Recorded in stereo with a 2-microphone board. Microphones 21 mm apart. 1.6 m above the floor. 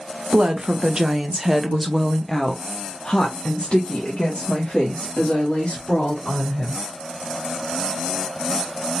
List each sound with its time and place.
0.3 s a woman speaking: 50° right (ahead or behind), 1.4 m; by 6.8 s 70° left (ahead or behind), 3 m